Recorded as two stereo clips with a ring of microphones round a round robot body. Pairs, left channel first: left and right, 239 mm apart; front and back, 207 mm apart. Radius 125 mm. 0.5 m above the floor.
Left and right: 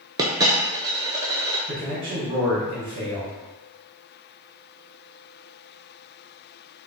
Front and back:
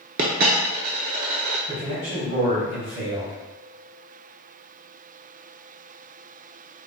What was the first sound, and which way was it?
A dropped coin, 155° right.